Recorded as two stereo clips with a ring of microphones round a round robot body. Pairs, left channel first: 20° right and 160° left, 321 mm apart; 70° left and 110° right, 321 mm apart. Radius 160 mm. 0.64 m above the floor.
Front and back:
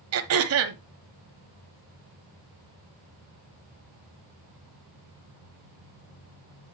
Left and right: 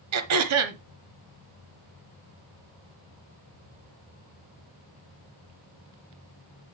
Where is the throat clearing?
155° right, 1.0 m.